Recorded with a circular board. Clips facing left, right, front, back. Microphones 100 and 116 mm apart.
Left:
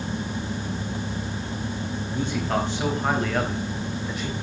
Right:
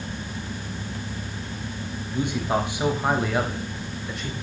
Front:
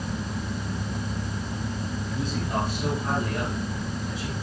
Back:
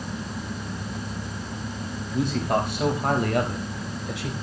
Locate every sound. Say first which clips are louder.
2.1 s a man speaking: right 2 dB, back 6 dB; 160° right, 5 m; by 4.3 s straight behind, 4 m